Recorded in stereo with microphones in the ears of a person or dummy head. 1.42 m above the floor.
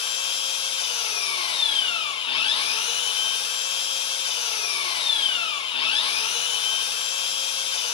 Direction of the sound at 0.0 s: 30° left (ahead or behind).